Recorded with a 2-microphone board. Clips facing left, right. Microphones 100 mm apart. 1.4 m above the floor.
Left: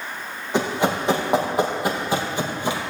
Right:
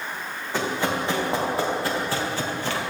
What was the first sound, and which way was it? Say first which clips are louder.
Running footsteps: left 4 dB; 20° left (ahead or behind).